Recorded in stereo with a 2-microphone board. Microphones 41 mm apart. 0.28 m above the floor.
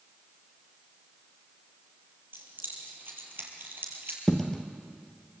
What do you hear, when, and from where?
2.3 s keys jangling: 50° right (ahead or behind), 5 m; by 4.2 s 60° right (ahead or behind), 4.5 m
4.3 s a dropped coin: 10° left (ahead or behind), 1.6 m